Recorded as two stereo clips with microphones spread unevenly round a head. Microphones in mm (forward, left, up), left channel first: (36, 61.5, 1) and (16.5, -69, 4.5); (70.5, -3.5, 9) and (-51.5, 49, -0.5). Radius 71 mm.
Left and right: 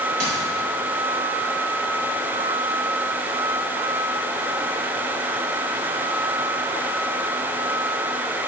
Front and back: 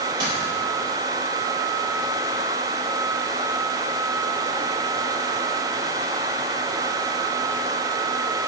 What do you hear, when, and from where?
0.2 s a dropped coin: 140° right, 2 m